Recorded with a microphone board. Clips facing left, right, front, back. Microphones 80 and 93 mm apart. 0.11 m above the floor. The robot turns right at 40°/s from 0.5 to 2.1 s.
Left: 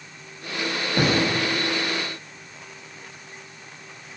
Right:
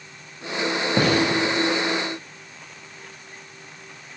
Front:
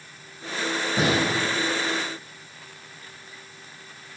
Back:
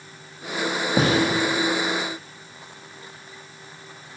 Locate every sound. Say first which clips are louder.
1.0 s a gunshot: right 1 dB, back 3 dB; 135° right, 2.0 m; by 1.2 s 125° right, 2.0 m